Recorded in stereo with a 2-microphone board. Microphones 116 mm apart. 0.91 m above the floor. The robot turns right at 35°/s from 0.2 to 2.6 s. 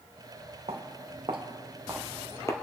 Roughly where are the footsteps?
Right.